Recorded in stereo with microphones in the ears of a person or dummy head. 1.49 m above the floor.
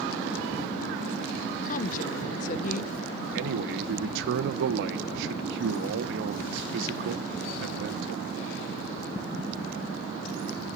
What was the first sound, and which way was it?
A woman speaking, 45° left (ahead or behind).